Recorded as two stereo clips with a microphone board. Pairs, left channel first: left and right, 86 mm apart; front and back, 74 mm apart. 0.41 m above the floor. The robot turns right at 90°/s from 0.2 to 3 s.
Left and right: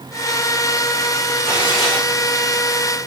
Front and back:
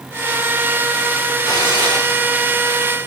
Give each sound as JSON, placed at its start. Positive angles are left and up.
{"t": 1.4, "sound": "tearing paper", "azimuth_deg": -25, "distance_m": 8.0}